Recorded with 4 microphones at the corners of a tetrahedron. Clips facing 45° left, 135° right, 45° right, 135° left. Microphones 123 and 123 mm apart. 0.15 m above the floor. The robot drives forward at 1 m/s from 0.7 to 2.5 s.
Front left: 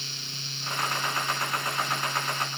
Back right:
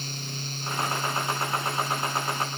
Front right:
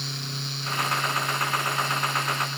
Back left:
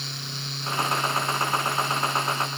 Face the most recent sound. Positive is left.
No sound to turn to.